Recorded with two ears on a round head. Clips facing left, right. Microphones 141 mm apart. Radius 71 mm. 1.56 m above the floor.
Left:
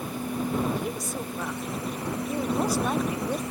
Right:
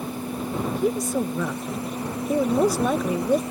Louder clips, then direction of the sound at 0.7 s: Right 8 dB; 85° right.